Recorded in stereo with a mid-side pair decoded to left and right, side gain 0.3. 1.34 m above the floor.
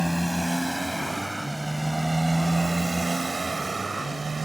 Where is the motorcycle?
10° right; by 4.5 s 55° right.